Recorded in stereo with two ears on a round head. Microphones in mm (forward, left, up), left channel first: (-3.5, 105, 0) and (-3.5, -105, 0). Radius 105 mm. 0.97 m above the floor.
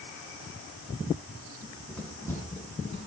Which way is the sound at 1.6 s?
5° right (ahead or behind).